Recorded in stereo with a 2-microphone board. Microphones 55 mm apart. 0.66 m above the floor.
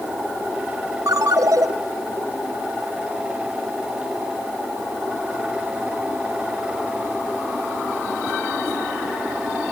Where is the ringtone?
85° right, 1.8 m.